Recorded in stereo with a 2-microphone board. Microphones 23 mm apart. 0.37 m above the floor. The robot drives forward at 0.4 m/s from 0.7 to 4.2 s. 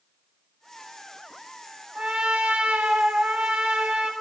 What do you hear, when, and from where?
1.9 s a trumpet: 50° right (ahead or behind), 0.7 m